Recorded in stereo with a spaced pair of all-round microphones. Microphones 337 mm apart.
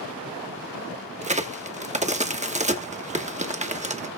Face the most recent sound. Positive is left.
turn(degrees=-20)  # may be behind; listen again after turning